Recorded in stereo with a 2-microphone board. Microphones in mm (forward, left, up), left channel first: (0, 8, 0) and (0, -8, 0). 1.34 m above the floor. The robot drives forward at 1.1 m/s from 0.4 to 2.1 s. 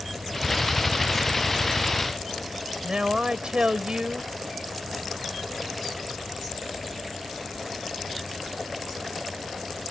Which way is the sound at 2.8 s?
75° right (ahead or behind).